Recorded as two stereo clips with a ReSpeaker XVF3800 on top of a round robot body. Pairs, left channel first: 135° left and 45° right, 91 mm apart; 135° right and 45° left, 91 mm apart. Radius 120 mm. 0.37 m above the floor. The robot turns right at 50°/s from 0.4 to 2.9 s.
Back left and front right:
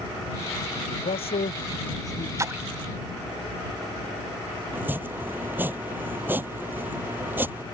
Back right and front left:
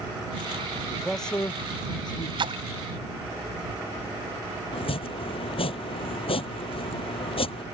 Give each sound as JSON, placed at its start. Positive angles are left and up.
{"t": 0.9, "sound": "a man speaking", "azimuth_deg": 125}
{"t": 2.4, "sound": "a splash", "azimuth_deg": 10}
{"t": 4.7, "sound": "chopping", "azimuth_deg": -115}